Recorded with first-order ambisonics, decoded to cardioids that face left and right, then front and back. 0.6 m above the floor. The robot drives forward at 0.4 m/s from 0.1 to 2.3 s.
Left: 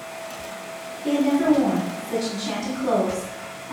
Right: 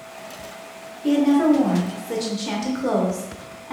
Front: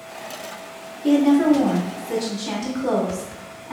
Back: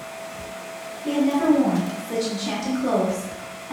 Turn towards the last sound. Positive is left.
turn(degrees=-90)